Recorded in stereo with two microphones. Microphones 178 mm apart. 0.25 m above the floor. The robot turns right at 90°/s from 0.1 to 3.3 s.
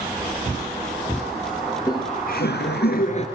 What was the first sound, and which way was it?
Laughter, 5° left.